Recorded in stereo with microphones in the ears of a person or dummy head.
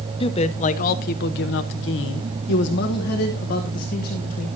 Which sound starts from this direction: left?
A man speaking, at 0.2 s.